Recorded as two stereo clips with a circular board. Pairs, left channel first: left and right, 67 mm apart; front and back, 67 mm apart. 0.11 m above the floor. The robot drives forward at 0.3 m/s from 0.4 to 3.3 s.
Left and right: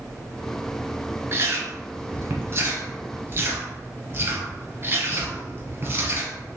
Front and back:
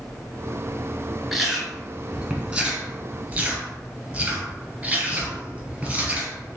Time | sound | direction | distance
1.3 | chewing | 85° right | 1.6 m